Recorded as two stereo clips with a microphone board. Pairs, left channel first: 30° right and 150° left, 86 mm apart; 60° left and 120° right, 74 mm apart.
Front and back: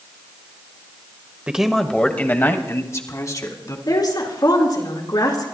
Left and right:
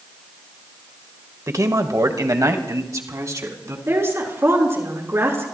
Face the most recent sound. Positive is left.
turn(degrees=-65)